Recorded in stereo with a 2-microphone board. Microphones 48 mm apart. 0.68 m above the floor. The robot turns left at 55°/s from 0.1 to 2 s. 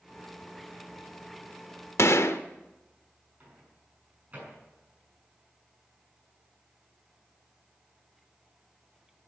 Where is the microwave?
35° right (ahead or behind), 6 m.